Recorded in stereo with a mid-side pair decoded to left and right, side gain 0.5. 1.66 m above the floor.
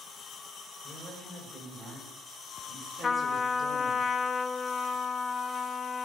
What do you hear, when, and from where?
0.8 s a woman speaking: 25° right, 6 m
3.0 s a trumpet: 35° left, 0.6 m